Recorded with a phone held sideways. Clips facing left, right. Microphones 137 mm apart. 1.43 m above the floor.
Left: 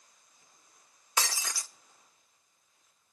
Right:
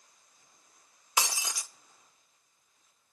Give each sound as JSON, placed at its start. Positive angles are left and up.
{"t": 1.2, "sound": "breaking glass", "side_deg": -15, "distance_m": 0.7}